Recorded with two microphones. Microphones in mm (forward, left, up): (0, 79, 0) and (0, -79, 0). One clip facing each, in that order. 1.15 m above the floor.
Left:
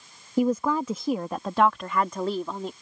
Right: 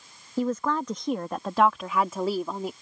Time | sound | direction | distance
0.4 | a woman speaking | 15° left (ahead or behind) | ?